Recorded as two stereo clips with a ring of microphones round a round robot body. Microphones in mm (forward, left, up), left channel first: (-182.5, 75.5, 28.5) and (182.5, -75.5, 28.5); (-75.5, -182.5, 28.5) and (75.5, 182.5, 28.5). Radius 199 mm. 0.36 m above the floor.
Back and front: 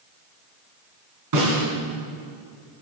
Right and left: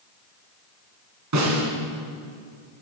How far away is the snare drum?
About 4 m.